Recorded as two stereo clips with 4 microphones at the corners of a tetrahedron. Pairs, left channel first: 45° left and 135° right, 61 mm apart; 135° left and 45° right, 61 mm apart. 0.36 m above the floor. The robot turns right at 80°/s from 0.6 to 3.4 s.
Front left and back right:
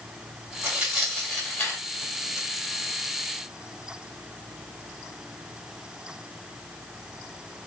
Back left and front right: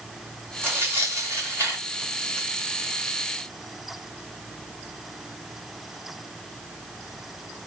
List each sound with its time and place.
0.6 s tearing paper: 80° right, 2.0 m; by 2.5 s 65° left, 2.0 m